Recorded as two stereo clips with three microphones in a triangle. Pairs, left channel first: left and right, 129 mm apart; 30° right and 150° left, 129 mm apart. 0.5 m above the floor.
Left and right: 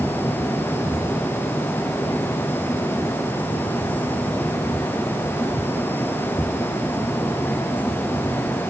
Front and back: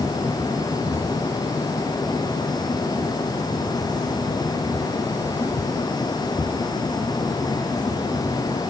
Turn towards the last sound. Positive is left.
No sound to turn to.